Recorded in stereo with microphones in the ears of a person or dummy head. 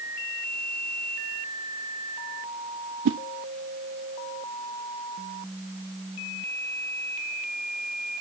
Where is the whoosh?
75° right (ahead or behind), 0.8 m.